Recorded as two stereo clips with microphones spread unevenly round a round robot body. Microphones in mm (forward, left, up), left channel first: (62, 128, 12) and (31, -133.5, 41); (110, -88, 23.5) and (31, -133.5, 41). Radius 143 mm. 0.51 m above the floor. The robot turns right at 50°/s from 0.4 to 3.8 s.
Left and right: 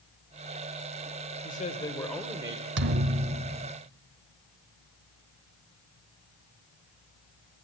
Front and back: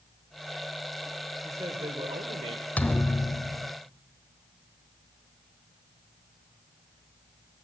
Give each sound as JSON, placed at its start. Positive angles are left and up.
{"t": 1.4, "sound": "a man speaking", "azimuth_deg": 135, "distance_m": 2.0}
{"t": 2.8, "sound": "a thud", "azimuth_deg": -50, "distance_m": 0.7}